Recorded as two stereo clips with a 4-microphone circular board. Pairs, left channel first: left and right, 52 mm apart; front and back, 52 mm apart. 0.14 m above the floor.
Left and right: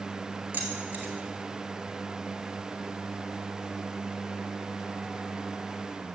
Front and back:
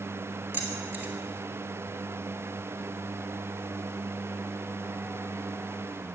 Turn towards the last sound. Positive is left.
turn(degrees=-135)